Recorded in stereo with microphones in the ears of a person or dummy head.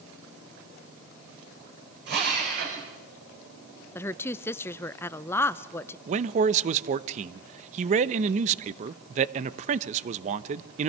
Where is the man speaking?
40° right (ahead or behind), 0.9 m.